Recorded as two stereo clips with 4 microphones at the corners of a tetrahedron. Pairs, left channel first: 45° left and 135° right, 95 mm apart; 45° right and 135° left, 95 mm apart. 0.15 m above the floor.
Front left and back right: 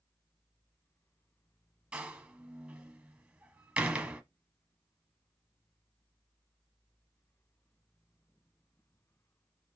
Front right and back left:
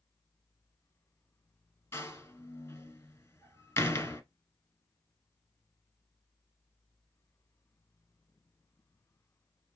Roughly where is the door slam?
Right.